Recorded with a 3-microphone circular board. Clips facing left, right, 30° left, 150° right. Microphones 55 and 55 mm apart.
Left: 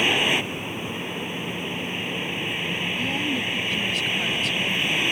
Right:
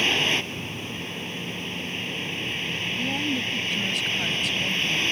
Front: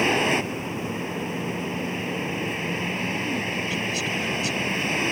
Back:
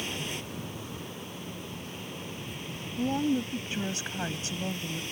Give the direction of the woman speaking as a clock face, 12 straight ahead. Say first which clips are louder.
Right 1 dB, front 1 dB; 6 o'clock.